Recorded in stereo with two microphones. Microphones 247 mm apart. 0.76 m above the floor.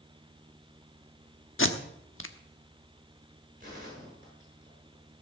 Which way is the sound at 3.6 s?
35° right (ahead or behind).